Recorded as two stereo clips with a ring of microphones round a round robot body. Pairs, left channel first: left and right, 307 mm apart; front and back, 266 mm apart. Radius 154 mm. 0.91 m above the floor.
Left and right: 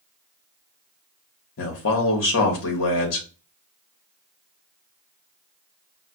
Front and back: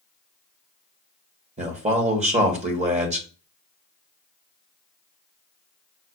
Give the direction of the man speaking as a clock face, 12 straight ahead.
8 o'clock.